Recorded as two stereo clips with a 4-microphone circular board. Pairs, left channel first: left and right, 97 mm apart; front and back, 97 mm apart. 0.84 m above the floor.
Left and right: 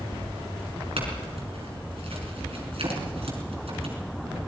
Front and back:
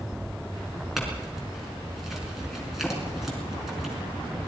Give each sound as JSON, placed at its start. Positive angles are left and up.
{"t": 1.0, "sound": "a clink", "azimuth_deg": -90, "distance_m": 5.5}